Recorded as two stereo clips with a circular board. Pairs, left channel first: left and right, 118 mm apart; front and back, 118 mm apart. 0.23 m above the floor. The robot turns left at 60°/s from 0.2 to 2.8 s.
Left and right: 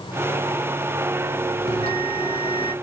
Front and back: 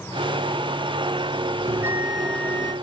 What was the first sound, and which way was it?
A bell, 120° left.